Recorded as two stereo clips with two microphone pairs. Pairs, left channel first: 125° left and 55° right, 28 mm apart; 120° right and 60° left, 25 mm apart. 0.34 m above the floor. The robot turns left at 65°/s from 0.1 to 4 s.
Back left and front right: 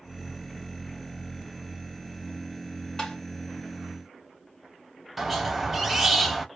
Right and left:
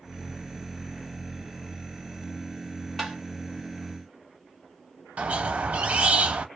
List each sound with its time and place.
3.0 s tapping: 155° left, 1.4 m; by 3.2 s 145° left, 1.4 m
5.2 s a squeak: 35° left, 0.5 m